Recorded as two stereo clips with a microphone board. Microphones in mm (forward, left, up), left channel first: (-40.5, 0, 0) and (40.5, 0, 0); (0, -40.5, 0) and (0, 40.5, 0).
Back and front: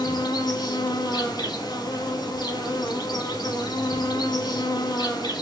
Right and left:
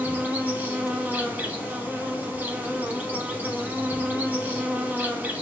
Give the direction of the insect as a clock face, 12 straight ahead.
7 o'clock.